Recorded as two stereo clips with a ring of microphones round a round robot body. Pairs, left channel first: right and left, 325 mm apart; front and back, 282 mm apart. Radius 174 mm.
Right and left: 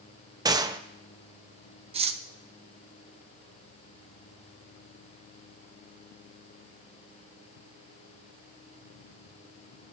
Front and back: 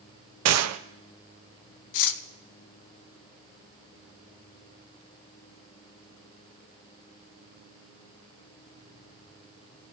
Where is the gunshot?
165° left, 0.7 m.